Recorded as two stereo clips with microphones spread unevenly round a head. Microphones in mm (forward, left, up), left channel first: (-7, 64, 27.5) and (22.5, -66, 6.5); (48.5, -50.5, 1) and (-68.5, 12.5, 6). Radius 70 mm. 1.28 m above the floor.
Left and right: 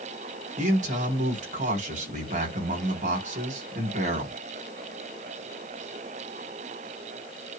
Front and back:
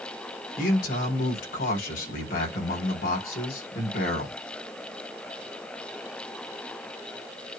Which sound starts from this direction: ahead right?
A man speaking, at 0.6 s.